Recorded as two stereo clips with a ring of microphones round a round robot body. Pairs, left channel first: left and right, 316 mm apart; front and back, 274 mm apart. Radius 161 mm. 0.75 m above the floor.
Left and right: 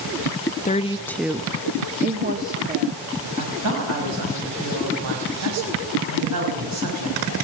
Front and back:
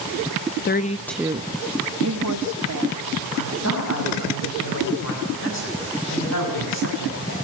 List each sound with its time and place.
0.7 s a woman speaking: 30° left, 0.7 m; by 3.0 s 150° right, 1.9 m
3.4 s a woman speaking: 50° right, 5.5 m